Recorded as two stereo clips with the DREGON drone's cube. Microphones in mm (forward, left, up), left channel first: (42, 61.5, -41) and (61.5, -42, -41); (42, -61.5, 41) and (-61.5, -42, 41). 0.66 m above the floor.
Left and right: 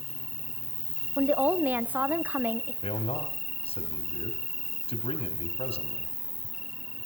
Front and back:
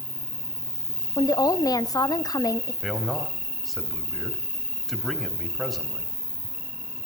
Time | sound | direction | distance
0.0 | an insect | 85° right | 1.7 m
1.2 | a woman speaking | 20° right | 0.8 m
2.8 | a man speaking | 80° left | 3 m